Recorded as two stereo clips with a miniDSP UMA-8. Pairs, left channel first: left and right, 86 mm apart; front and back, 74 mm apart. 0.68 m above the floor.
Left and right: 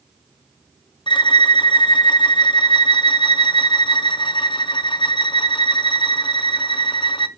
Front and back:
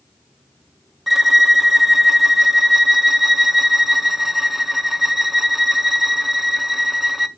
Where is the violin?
95° left, 0.5 m.